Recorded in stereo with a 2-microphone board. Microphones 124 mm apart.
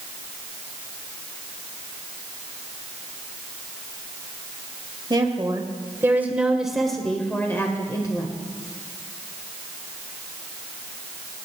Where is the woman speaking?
35° right (ahead or behind), 1.7 m; by 8.3 s 35° left (ahead or behind), 1.6 m.